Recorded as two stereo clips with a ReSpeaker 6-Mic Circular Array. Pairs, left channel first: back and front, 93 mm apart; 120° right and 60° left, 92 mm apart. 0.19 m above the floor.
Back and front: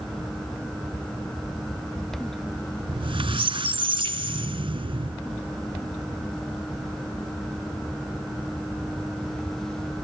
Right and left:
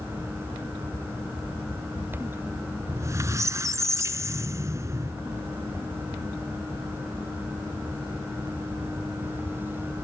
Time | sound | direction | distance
2.9 | a squeak | 5° left | 0.6 m